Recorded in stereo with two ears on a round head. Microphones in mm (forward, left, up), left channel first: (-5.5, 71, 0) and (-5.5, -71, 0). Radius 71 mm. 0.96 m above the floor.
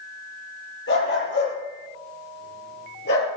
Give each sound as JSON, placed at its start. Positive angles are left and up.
{"t": 0.9, "sound": "a dog barking", "side_deg": 75, "distance_m": 8.5}